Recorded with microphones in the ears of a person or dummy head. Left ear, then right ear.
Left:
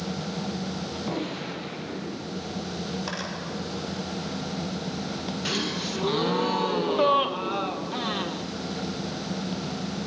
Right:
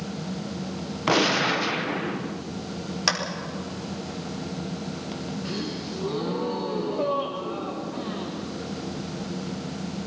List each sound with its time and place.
1.1 s a gunshot: 55° right (ahead or behind), 0.8 m
3.1 s a clap: 70° right (ahead or behind), 5 m
5.5 s a gasp: 55° left (ahead or behind), 0.9 m